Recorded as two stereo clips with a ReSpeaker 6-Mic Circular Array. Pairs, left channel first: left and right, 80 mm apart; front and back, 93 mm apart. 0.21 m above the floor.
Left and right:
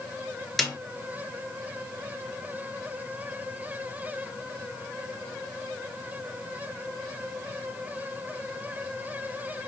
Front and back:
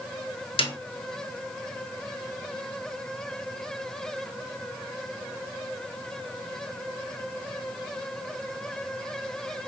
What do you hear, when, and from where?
0.6 s a snare drum: 5° left, 0.7 m